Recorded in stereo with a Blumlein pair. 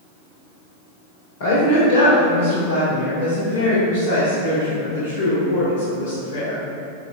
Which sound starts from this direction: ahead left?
A woman speaking, at 1.4 s.